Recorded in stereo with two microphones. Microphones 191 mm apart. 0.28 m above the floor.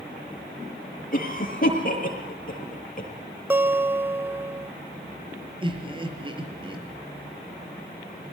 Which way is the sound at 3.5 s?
10° right (ahead or behind).